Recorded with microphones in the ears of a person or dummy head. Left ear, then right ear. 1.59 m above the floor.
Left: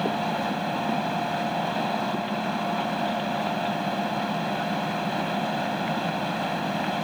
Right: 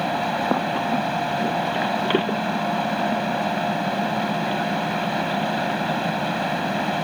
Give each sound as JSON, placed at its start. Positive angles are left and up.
{"t": 0.0, "sound": "a fan", "side_deg": -5}